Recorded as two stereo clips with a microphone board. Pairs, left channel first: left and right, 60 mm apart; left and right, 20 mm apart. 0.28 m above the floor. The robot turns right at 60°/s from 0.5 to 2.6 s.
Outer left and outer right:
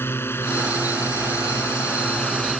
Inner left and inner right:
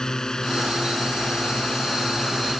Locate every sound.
0.0 s a drone: 40° left (ahead or behind); by 2.6 s 5° left (ahead or behind)